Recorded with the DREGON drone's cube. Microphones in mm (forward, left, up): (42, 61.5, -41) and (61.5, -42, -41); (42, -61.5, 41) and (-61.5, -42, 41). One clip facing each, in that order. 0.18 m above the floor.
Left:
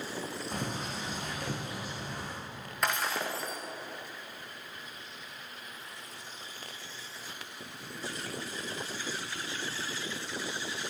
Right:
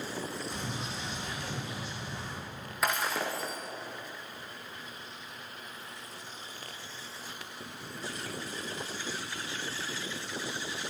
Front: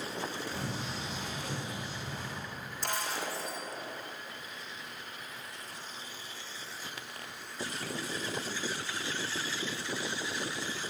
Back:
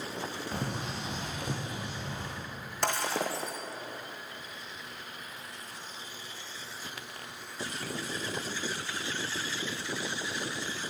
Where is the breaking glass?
165° right, 3.5 m.